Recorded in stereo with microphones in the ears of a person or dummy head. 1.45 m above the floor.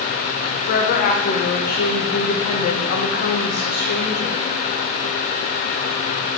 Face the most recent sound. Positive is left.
turn(degrees=50)  # may be behind; listen again after turning